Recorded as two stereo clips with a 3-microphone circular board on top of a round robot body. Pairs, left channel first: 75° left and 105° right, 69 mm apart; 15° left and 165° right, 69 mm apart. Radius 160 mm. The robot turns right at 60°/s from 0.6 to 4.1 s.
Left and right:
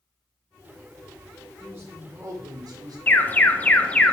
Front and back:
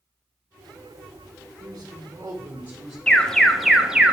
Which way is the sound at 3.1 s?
75° left.